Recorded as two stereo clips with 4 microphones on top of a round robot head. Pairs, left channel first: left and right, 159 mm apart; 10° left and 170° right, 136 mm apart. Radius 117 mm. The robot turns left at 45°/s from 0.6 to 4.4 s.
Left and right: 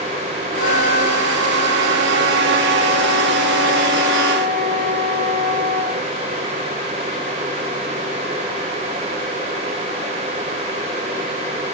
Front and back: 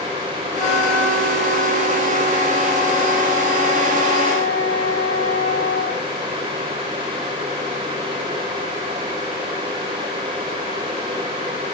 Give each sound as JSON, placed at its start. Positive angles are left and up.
{"t": 0.6, "sound": "a flute", "azimuth_deg": 55, "distance_m": 3.0}